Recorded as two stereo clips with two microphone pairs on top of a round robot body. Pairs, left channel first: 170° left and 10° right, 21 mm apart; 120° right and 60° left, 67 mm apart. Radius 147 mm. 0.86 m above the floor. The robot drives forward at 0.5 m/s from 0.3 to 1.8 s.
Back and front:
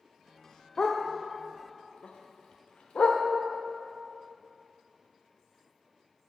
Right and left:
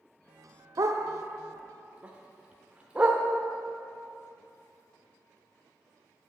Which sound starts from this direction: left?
A dog barking, at 0.8 s.